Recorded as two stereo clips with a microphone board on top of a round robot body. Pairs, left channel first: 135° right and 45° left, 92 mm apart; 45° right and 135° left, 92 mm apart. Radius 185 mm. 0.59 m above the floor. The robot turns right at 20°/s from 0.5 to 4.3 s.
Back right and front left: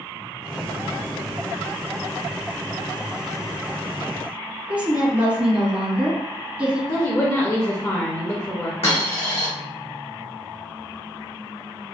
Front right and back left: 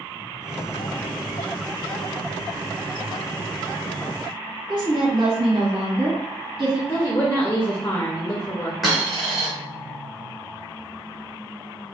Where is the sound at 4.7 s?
120° left, 1.5 m.